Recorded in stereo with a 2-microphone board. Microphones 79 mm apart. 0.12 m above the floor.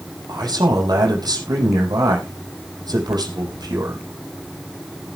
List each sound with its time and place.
0.3 s a man speaking: 60° right (ahead or behind), 5 m